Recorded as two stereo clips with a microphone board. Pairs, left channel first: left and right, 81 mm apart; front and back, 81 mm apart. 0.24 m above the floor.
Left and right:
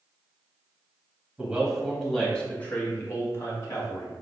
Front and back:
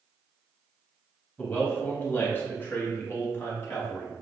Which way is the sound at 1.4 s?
40° right.